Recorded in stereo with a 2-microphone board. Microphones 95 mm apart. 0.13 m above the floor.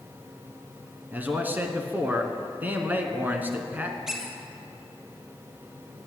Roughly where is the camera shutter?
I don't hear a camera shutter.